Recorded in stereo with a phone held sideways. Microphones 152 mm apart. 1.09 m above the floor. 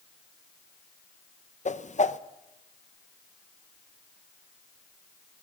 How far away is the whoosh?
About 0.6 m.